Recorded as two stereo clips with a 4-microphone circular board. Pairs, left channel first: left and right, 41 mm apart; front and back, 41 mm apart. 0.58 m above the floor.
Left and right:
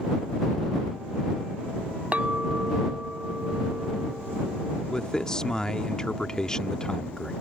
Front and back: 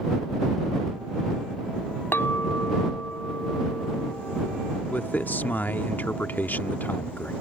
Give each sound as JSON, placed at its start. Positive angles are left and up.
{"t": 2.1, "sound": "a clink", "azimuth_deg": -35}
{"t": 4.9, "sound": "a man speaking", "azimuth_deg": 20}